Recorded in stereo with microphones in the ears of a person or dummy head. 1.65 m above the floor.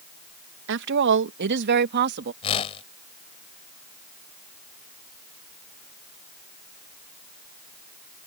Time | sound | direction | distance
0.7 | a woman speaking | 65° right (ahead or behind) | ?
2.4 | a whoosh | 35° left (ahead or behind) | ?